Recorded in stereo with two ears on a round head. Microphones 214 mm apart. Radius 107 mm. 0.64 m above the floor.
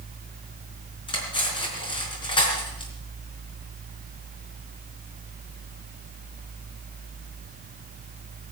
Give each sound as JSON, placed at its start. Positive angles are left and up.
{"t": 1.1, "sound": "cutlery clinking", "side_deg": 20, "distance_m": 4.5}